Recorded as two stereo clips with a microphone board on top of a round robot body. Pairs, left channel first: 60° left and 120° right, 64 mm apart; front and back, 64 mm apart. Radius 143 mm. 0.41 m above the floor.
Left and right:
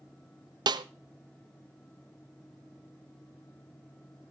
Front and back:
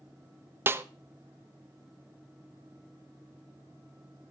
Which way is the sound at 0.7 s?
120° right.